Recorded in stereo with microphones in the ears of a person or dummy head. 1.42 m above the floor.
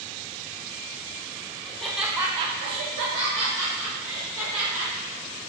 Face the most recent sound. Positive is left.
turn(degrees=-35)  # may be behind; listen again after turning